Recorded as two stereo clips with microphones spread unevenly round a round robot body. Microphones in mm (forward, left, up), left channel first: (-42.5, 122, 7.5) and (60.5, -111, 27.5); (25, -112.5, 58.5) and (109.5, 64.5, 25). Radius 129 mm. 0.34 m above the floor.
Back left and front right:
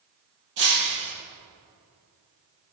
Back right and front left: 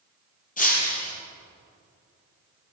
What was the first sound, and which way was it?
Breaking glass, 70° right.